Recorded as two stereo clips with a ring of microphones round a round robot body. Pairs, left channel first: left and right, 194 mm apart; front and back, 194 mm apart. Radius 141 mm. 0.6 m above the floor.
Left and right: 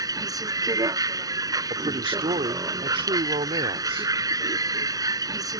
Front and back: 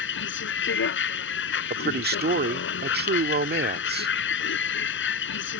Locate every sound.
0.0 s a vehicle: 20° right
1.7 s a man speaking: 155° right